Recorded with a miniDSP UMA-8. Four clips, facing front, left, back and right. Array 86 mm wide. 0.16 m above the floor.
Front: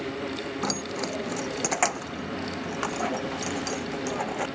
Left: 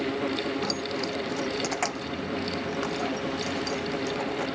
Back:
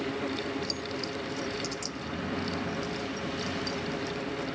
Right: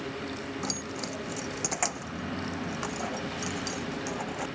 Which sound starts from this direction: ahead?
Keys jangling, at 0.6 s.